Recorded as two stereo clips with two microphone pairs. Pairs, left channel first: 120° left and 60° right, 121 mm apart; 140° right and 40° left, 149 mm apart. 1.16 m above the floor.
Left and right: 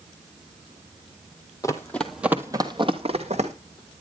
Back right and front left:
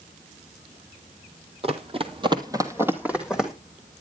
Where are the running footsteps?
70° left, 1.6 m; by 3.5 s 45° right, 2.5 m.